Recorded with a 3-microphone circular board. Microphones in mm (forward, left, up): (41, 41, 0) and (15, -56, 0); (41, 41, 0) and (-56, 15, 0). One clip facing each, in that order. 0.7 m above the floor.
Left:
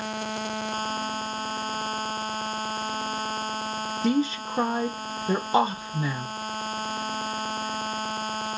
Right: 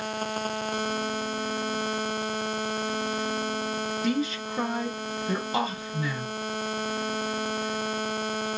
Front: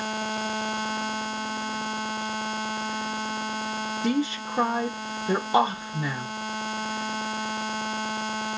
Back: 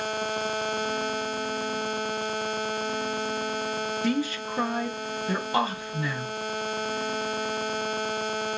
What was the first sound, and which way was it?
A woman speaking, 60° left.